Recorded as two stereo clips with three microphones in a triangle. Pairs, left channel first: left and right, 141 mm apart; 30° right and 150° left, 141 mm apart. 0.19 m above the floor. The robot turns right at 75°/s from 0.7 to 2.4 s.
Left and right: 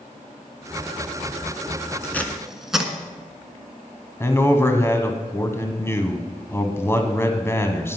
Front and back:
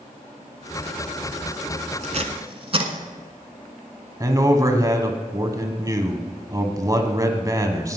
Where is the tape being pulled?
155° left, 1.3 m; by 2.9 s 175° right, 1.3 m.